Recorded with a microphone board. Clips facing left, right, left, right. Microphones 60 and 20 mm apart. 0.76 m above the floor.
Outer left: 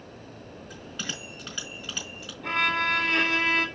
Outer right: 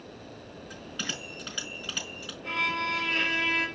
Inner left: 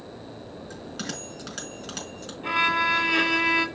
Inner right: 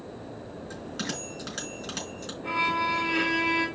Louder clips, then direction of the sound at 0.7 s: Even, inner right 1 dB; centre (ahead or behind).